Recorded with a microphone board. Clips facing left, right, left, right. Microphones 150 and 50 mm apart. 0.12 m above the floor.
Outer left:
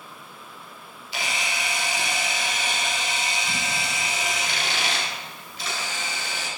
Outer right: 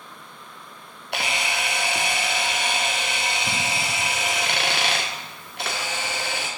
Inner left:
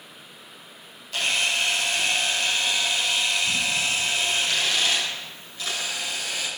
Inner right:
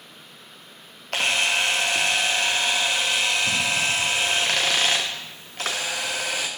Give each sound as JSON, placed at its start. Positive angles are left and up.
{"t": 1.1, "sound": "a camera shutter", "side_deg": -65, "distance_m": 2.5}